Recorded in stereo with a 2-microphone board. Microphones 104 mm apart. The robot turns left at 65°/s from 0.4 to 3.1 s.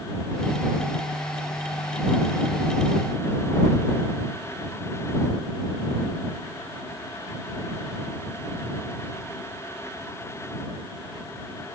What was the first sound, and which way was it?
Only background noise.